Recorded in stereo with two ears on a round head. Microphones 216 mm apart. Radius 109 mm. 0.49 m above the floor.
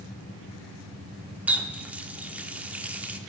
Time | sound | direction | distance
1.5 | a running tap | 5° right (ahead or behind) | 0.6 m